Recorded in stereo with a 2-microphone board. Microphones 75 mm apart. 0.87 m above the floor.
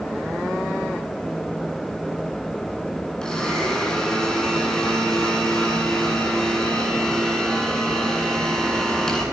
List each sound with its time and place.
3.2 s a blender: 10° left (ahead or behind), 8.5 m